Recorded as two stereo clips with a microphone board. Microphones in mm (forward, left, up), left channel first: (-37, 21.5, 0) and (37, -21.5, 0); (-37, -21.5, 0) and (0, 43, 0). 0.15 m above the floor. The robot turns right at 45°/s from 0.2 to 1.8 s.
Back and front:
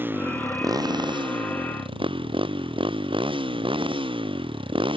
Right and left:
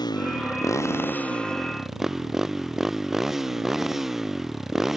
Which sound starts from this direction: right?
A motorcycle, at 0.0 s.